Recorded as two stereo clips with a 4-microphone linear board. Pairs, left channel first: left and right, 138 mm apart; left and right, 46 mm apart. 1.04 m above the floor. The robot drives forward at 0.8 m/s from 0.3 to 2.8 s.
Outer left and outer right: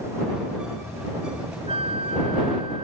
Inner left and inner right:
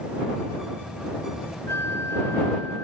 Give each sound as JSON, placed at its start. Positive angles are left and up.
{"t": 1.7, "sound": "a flute", "side_deg": 70}